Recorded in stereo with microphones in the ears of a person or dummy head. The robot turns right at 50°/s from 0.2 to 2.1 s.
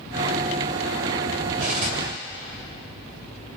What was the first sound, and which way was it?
Cutlery clinking, 55° right (ahead or behind).